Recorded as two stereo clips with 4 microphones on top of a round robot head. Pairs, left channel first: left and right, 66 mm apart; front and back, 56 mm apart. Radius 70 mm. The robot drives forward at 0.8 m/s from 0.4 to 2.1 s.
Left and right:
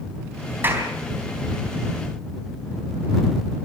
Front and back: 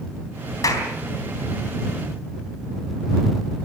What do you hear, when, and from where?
0.6 s a clap: 25° right, 4 m